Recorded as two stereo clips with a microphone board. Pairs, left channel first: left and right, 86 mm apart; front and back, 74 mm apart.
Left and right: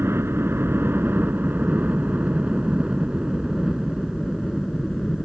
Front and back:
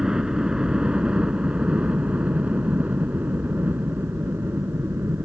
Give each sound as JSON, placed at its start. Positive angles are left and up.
{"t": 0.0, "sound": "a helicopter", "azimuth_deg": -105}